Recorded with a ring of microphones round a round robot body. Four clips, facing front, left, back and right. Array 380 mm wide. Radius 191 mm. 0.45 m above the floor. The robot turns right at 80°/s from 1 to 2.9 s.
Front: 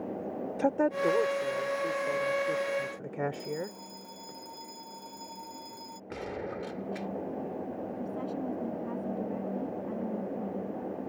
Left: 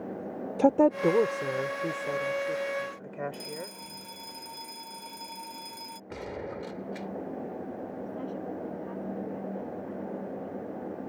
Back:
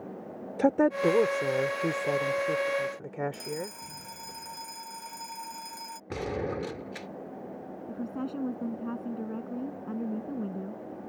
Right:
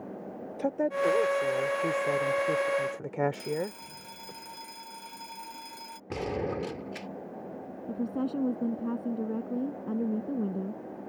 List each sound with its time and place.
0.6 s a woman speaking: 120° left; by 4.3 s 90° right
3.3 s a fire alarm: 170° right
6.1 s a gunshot: 130° right
7.9 s a woman speaking: 105° right